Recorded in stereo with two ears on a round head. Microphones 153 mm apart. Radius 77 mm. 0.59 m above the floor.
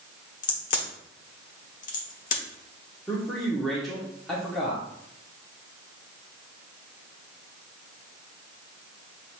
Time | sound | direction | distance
0.4 | a crack | 50° left (ahead or behind) | 1.2 m
3.1 | a man speaking | centre (ahead or behind) | 1.1 m